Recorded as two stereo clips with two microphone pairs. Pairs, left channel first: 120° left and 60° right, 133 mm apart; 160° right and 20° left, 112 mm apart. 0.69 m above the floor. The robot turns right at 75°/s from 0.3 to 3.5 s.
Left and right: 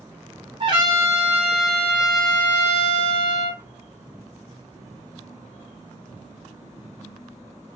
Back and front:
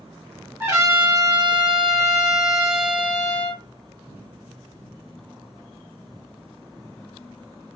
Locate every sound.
0.6 s a trumpet: 45° right, 0.9 m; by 3.6 s 175° left, 0.9 m